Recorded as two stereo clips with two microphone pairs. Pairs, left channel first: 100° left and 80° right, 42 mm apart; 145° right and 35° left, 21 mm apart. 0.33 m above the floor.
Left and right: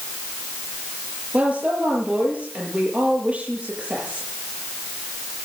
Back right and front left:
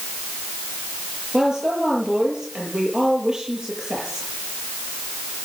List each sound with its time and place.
1.3 s a woman speaking: 20° right, 7 m